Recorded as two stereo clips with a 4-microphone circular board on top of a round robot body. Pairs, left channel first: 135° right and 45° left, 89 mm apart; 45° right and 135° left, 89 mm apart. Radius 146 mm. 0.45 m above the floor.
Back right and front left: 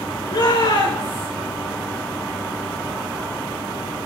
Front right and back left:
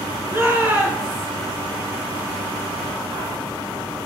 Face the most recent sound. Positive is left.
turn(degrees=-160)